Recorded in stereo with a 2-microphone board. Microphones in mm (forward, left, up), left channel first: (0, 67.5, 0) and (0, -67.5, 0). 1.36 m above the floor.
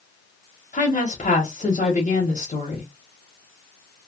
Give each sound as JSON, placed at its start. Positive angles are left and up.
{"t": 0.7, "sound": "a woman speaking", "side_deg": 75, "distance_m": 1.0}